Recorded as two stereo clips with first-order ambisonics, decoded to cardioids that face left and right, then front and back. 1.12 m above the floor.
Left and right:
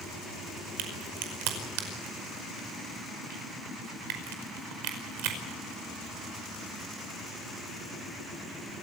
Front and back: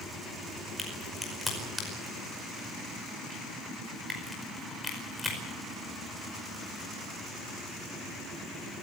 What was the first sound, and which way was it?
A crack, 90° right.